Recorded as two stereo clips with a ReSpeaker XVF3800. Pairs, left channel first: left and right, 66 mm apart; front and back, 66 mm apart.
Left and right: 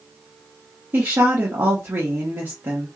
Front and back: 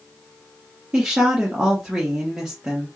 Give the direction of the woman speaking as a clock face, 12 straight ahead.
4 o'clock.